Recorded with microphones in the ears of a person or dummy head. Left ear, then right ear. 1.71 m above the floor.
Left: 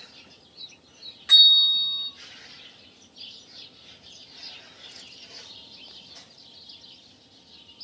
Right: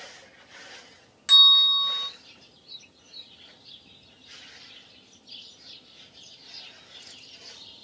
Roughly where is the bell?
Right.